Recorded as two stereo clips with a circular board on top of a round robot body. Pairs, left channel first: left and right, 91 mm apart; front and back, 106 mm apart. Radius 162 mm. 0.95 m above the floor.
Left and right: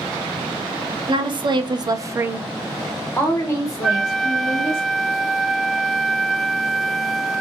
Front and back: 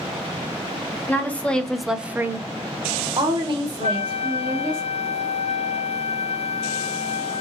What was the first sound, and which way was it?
A woman speaking, 70° right.